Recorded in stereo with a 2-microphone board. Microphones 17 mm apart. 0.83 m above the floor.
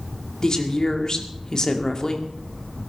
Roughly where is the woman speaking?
Left.